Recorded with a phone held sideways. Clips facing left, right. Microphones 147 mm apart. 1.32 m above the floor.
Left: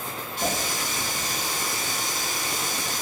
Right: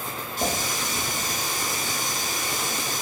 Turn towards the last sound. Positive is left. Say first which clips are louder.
# right 1 dB
turn(degrees=-45)  # may be behind; listen again after turning